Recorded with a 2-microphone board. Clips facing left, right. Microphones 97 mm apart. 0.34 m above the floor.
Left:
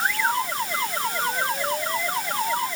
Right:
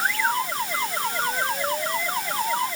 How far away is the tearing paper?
No tearing paper in this recording.